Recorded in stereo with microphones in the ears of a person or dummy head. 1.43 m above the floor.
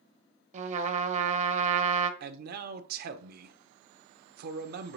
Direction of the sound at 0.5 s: 40° right (ahead or behind).